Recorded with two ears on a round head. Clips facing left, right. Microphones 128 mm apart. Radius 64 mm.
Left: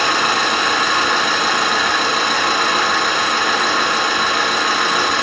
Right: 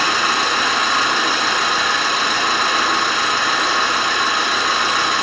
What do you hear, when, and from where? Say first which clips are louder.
0.0 s an engine running: left 2 dB; 50° left (ahead or behind), 2.5 m